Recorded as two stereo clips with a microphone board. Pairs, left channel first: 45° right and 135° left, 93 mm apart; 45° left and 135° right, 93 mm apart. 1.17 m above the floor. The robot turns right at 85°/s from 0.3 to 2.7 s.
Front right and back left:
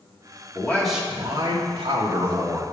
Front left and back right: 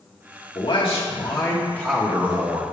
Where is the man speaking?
15° left, 2.0 m; by 2.6 s 165° right, 2.0 m.